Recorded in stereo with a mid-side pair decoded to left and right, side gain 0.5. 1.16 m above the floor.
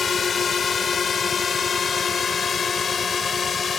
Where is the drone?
40° left.